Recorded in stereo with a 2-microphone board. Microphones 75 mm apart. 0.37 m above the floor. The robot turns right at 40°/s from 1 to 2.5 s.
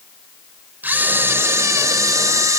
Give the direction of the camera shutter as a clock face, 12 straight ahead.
5 o'clock.